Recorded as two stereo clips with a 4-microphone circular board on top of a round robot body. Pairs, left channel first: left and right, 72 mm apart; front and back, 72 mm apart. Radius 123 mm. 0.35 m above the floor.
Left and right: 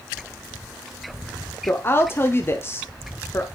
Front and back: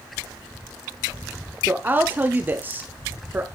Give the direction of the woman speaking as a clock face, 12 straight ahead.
8 o'clock.